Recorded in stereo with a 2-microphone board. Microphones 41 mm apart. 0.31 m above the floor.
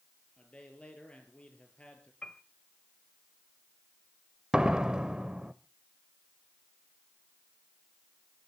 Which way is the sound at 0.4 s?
25° left (ahead or behind).